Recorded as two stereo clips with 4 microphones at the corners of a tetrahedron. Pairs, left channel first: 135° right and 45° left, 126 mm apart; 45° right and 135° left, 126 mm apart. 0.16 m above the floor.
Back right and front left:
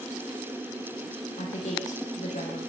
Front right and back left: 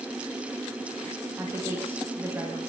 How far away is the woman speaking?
About 9.5 m.